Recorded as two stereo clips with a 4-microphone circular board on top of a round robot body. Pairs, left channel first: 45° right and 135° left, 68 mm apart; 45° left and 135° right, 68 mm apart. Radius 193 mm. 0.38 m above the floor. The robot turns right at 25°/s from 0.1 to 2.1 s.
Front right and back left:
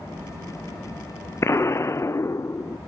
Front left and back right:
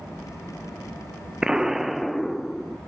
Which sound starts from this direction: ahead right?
An explosion, at 1.4 s.